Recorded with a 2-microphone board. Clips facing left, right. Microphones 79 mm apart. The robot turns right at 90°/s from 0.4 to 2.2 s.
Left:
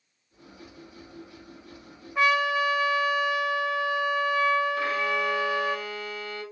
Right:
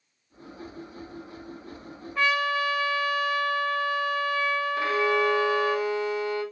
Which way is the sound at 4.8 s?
25° right (ahead or behind).